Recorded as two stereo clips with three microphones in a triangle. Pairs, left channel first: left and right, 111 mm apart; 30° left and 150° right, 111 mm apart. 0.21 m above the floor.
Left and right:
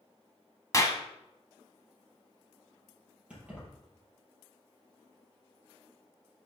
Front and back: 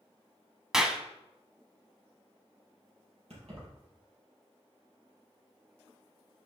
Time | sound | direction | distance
0.7 | a clap | 130° left | 1.0 m
3.3 | keys jangling | 170° right | 4.5 m